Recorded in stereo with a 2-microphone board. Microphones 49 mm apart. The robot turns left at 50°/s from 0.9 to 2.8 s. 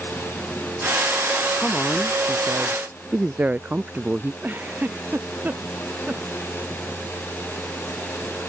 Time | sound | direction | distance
1.6 | a woman speaking | 25° left | ?
4.4 | a giggle | 40° right (ahead or behind) | ?